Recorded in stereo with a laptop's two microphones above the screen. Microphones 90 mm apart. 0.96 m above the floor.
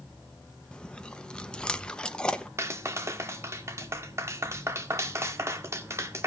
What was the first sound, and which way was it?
Chewing, 10° left (ahead or behind).